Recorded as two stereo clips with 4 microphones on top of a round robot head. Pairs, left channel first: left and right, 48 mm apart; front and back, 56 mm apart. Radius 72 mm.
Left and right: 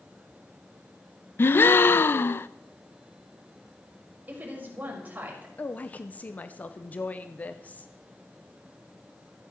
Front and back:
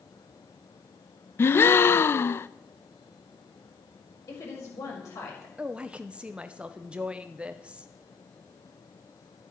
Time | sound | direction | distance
1.4 | a gasp | 50° left | 0.6 m
4.3 | a woman speaking | 40° right | 5 m
5.6 | a woman speaking | 120° left | 0.8 m